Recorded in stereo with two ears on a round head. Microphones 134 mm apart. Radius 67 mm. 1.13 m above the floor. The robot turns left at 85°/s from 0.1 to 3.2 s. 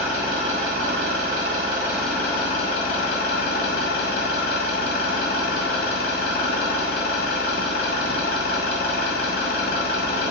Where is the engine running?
15° right, 1.8 m; by 10.3 s 80° left, 1.8 m.